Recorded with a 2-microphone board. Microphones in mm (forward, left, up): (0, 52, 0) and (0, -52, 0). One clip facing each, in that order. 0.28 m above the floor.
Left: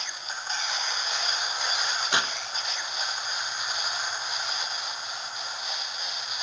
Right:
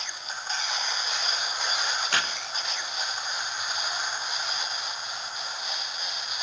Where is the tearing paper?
20° left (ahead or behind), 0.7 m.